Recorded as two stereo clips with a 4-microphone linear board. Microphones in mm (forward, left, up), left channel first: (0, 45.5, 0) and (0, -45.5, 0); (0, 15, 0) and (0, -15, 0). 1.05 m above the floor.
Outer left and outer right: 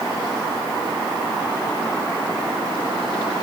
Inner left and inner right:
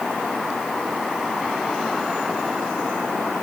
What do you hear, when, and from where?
Only background noise.